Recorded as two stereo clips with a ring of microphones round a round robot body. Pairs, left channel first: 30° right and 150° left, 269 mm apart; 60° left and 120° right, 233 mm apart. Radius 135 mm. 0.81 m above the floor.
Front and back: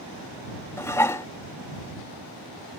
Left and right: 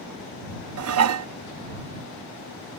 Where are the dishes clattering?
110° right.